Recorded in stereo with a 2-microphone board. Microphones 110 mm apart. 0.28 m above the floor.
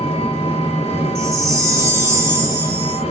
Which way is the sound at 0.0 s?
85° left.